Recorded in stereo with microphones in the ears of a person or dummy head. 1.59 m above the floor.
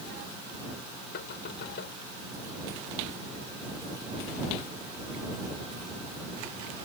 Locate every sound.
1.1 s knocking: 60° left (ahead or behind)